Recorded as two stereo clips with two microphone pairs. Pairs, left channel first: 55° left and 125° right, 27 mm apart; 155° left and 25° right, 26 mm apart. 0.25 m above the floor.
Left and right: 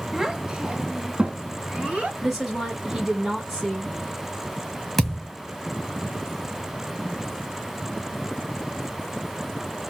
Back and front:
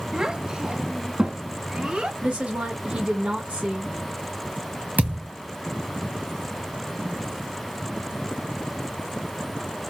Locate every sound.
0.1 s a child speaking: 55° right, 0.7 m; by 2.1 s 80° right, 2.5 m
2.2 s a woman speaking: 50° right, 2.5 m
5.0 s a thud: 25° right, 1.5 m